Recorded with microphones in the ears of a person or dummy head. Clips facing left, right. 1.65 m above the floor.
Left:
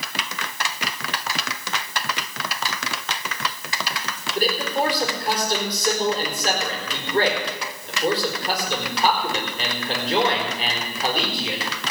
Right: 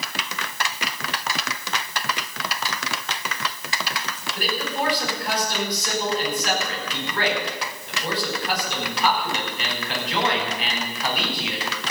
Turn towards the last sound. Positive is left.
turn(degrees=30)  # may be behind; listen again after turning